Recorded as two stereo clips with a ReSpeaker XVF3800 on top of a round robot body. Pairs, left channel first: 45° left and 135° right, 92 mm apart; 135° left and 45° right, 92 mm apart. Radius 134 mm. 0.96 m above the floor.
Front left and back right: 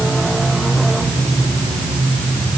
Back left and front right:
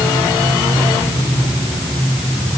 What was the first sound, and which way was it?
Only background noise.